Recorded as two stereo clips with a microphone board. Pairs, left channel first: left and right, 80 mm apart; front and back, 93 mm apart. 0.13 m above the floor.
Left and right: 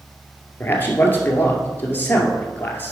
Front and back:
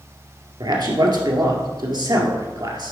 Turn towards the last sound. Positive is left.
turn(degrees=150)